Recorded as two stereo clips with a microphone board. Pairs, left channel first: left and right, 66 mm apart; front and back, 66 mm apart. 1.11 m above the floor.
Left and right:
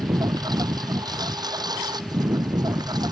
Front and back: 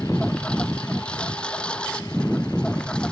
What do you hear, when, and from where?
0.0 s a lawn mower: 75° right